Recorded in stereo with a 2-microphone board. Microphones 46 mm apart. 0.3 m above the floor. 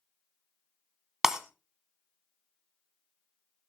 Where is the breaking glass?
10° right (ahead or behind), 1.0 m.